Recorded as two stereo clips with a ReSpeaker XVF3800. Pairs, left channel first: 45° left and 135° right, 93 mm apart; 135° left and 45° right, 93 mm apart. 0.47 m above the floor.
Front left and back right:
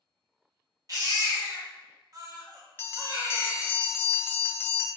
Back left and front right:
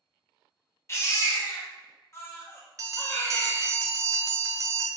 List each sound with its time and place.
0.9 s a baby crying: 170° right, 0.8 m
2.8 s a bell: 10° right, 0.5 m